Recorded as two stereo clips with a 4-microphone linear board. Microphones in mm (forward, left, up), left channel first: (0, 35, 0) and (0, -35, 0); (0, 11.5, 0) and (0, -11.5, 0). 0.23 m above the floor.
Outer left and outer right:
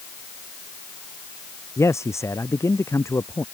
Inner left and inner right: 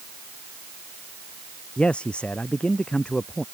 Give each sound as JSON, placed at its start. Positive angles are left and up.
{"t": 1.8, "sound": "a man speaking", "side_deg": 45}